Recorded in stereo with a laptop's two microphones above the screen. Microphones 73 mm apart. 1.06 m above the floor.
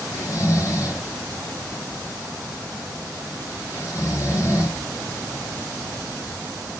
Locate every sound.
0.1 s snoring: 45° left (ahead or behind), 6 m